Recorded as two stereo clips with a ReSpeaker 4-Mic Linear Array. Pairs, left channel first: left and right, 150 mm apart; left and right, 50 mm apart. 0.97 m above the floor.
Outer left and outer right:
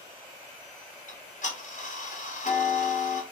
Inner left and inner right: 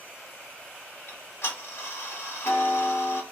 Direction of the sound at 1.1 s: 55° left (ahead or behind).